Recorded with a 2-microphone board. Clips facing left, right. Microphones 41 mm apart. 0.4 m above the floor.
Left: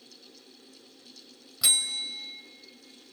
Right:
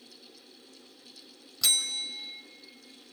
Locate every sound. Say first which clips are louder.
1.6 s a bell: left 1 dB; 10° left (ahead or behind), 1.6 m